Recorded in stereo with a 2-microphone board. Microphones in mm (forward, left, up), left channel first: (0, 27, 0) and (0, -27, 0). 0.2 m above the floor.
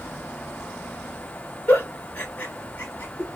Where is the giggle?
35° left (ahead or behind), 1.3 m.